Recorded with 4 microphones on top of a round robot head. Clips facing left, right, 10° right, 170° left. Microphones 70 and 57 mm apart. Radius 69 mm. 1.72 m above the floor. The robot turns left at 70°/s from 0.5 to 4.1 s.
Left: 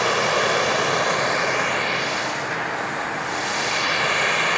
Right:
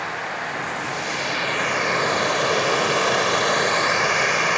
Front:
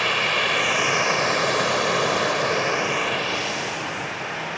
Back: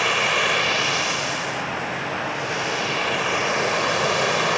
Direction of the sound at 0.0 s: 80° left.